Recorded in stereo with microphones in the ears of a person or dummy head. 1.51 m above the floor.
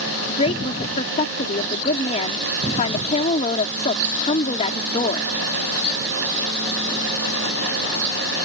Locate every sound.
0.3 s a woman speaking: 40° left (ahead or behind)